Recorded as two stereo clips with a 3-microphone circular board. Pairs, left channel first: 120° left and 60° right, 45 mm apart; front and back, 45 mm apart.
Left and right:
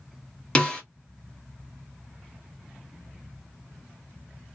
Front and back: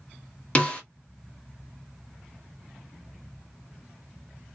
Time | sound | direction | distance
0.6 | a snare drum | 55° left | 0.9 m